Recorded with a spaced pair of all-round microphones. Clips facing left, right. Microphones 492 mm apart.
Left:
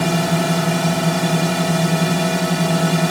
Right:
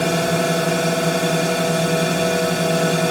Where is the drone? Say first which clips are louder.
Even; 20° left (ahead or behind).